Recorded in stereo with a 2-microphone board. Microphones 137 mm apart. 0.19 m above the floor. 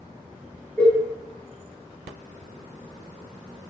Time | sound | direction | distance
0.8 | a cowbell | 15° left (ahead or behind) | 1.1 m